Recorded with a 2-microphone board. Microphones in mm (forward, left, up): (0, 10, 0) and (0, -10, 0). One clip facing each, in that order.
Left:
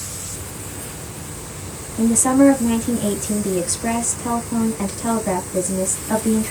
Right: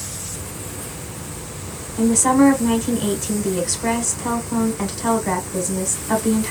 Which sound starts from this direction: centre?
A woman speaking, at 2.0 s.